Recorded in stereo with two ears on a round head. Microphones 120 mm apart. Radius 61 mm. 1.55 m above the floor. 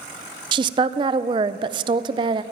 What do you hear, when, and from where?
0.5 s a woman speaking: 35° right (ahead or behind), 0.5 m